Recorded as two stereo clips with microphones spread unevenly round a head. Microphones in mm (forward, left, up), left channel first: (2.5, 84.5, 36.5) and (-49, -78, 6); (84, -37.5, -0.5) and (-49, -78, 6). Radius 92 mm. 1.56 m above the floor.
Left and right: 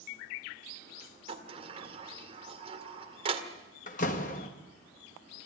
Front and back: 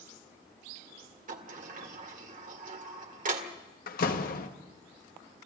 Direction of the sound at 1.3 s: 170° right.